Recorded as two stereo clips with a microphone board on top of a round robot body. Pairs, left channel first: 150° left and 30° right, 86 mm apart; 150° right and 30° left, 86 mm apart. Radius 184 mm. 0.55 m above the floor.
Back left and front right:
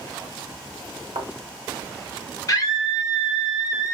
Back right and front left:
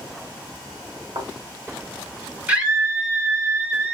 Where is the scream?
105° left, 2.5 m.